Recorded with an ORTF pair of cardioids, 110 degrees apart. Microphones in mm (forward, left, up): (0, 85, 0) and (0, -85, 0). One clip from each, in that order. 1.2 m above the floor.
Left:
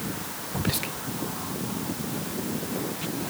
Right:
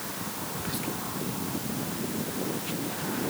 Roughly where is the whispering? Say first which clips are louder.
Left 6 dB; ahead left.